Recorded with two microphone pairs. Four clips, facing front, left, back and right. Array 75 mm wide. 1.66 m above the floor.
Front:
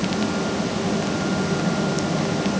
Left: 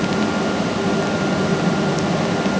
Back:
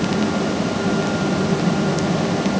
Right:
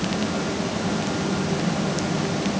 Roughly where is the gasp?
No gasp in this recording.